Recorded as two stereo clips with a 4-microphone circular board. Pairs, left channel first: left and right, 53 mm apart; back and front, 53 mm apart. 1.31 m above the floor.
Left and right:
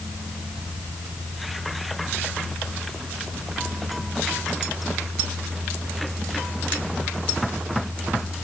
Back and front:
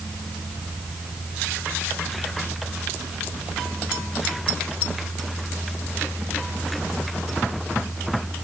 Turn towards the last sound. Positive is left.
No sound to turn to.